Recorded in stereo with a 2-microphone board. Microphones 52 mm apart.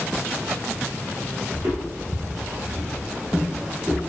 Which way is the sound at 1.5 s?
50° right (ahead or behind).